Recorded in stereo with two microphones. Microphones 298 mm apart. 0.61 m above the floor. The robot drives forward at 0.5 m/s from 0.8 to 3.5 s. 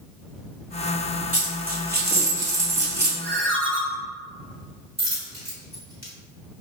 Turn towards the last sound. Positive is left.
turn(degrees=-60)  # may be behind; listen again after turning